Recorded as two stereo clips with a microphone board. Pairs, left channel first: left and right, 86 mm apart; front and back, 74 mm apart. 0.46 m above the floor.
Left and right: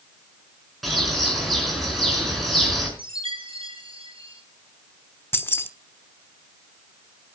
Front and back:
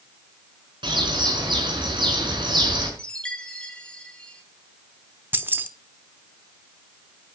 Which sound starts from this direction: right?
A chime, at 3.0 s.